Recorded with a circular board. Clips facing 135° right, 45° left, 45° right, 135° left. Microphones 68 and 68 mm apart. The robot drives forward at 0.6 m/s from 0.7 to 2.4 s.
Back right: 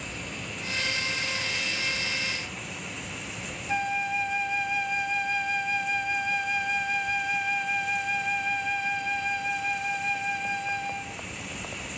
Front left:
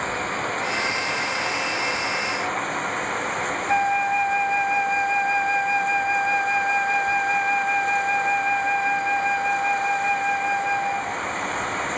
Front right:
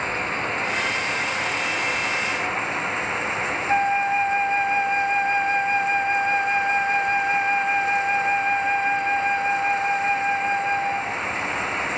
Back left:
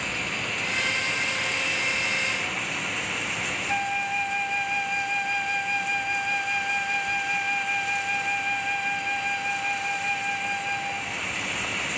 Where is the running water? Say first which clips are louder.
Front left 12 dB, front right 5 dB; 15° left.